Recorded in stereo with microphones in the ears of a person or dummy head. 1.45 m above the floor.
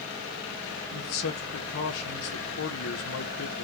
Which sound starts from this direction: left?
A man speaking, at 0.9 s.